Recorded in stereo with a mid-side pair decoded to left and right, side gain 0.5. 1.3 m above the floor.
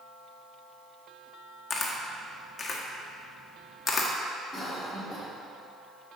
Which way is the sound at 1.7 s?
30° left.